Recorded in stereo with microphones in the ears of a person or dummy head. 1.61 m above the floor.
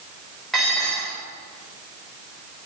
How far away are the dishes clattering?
About 2.5 m.